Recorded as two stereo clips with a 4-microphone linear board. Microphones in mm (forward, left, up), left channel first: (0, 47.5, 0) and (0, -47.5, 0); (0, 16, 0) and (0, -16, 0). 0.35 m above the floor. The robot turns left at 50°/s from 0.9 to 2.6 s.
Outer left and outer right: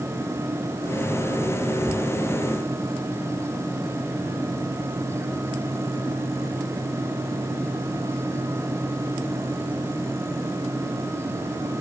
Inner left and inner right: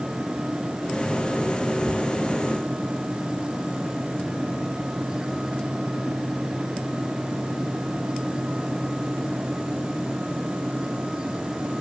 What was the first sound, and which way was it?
Only background noise.